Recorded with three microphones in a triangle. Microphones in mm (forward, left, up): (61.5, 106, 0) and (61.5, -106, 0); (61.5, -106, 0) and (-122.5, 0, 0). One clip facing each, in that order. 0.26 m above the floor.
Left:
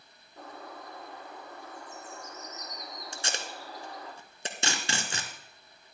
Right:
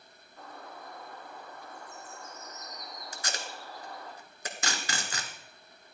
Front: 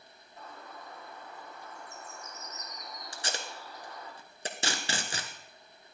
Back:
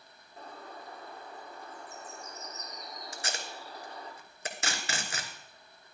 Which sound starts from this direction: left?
A bird, at 0.4 s.